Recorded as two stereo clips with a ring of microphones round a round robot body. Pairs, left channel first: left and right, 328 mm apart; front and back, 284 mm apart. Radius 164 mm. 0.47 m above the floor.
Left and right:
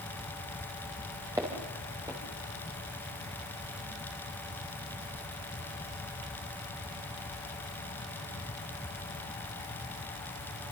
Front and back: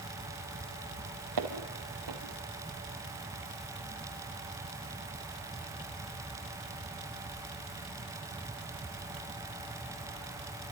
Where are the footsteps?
170° right, 5.5 m.